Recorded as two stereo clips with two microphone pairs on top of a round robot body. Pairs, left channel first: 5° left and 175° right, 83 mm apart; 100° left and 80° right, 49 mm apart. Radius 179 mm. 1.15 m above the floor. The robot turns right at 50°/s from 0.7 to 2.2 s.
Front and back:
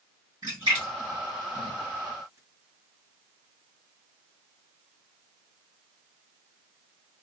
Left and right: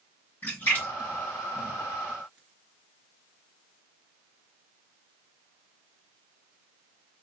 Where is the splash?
145° left, 2 m; by 2.4 s 140° right, 2 m.